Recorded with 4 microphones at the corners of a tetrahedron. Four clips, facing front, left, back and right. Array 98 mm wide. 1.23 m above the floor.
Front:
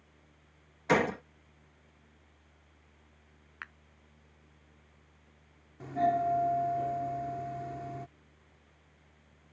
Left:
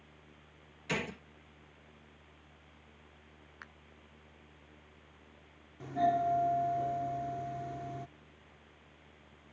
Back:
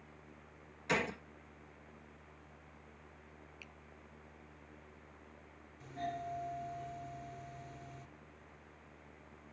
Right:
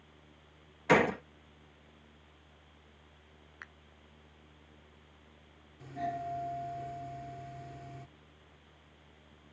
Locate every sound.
0.9 s a gunshot: 60° right
3.6 s a finger snap: 5° left
5.8 s a doorbell: 35° left